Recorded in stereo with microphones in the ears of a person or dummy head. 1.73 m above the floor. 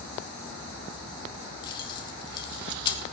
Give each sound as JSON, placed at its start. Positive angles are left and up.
{"t": 1.6, "sound": "keys jangling", "side_deg": 30, "distance_m": 1.0}